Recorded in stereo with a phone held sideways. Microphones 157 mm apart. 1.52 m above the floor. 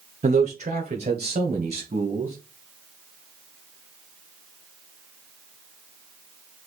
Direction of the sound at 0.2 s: 50° right (ahead or behind).